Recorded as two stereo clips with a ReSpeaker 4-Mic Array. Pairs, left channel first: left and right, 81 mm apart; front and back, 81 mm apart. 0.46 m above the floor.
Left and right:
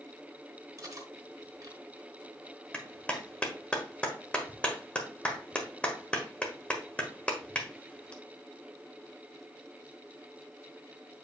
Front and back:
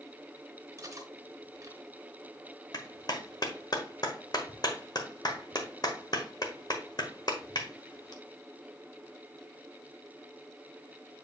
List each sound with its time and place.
0.8 s cutlery clinking: 135° right, 1.8 m
2.7 s a clap: 15° left, 1.4 m